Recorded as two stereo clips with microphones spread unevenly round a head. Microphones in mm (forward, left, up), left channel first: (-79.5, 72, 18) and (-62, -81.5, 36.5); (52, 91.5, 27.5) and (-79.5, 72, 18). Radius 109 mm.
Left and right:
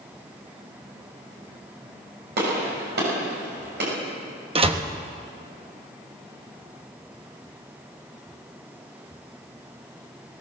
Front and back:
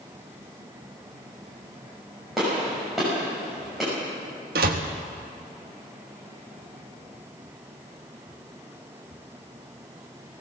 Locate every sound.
2.4 s a gunshot: 80° right, 6 m
4.5 s a door slam: 135° right, 1.3 m